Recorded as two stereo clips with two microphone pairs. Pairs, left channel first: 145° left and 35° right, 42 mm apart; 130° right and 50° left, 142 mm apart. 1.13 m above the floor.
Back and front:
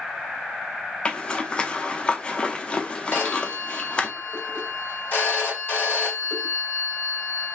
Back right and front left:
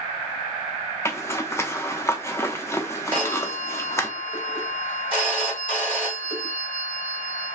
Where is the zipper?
175° right, 0.6 m.